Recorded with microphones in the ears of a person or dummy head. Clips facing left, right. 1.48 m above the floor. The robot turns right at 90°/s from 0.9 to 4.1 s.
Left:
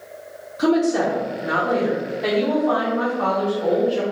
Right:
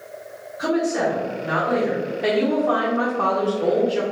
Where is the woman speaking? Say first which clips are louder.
Left 3 dB; 70° left, 0.8 m; by 4.0 s 10° right, 0.8 m.